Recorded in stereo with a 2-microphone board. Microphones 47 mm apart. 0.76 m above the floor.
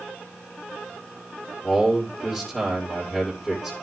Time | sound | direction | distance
1.6 | a man speaking | centre (ahead or behind) | 2 m